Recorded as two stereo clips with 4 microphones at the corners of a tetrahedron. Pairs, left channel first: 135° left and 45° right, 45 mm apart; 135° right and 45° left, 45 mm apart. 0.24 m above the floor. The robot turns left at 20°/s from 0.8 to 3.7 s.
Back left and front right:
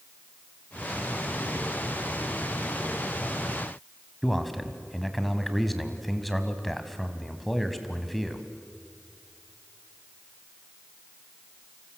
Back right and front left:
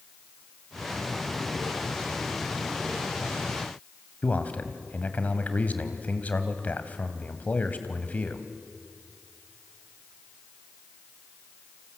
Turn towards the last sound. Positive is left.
turn(degrees=-140)